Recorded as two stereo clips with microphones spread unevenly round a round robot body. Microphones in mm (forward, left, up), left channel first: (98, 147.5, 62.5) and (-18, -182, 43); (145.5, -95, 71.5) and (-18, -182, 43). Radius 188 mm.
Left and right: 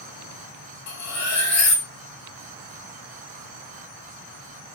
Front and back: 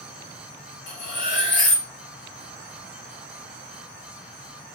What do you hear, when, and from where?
0.9 s cutlery clinking: 30° left, 1.2 m